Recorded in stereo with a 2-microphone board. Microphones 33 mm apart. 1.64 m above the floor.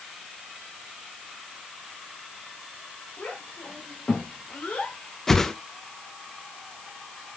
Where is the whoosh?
10° left (ahead or behind), 0.9 m.